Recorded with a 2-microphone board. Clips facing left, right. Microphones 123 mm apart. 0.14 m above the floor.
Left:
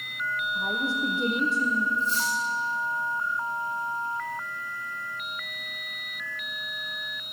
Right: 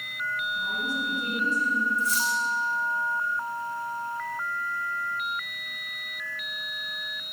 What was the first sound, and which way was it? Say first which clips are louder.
A woman speaking: left 5 dB; 75° left (ahead or behind).